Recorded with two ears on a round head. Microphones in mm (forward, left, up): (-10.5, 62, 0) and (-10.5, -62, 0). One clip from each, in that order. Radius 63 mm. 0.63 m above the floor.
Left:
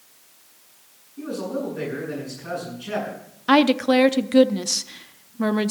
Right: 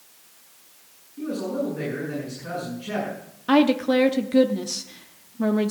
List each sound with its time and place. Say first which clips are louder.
1.2 s a man speaking: right 1 dB; 70° left (ahead or behind), 7 m
3.5 s a woman speaking: left 2 dB; 35° left (ahead or behind), 0.6 m